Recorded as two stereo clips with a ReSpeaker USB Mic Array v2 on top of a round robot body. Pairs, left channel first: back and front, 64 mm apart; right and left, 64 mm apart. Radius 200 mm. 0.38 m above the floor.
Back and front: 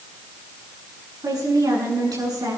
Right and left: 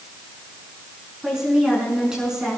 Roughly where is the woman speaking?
Ahead.